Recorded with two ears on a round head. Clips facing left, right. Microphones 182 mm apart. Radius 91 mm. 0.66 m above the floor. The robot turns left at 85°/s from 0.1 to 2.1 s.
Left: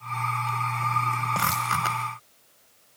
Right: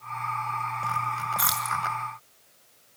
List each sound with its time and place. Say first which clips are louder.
1.4 s keys jangling: left 3 dB; 35° right (ahead or behind), 5.5 m; by 1.8 s 70° right (ahead or behind), 5.5 m